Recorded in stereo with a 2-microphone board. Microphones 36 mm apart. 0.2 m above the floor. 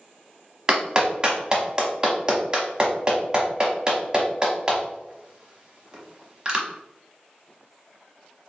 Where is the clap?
25° right (ahead or behind), 0.8 m.